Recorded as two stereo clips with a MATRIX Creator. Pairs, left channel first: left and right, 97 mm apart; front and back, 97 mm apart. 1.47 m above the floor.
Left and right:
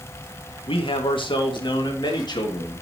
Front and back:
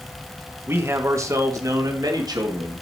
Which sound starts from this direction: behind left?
A man speaking, at 0.7 s.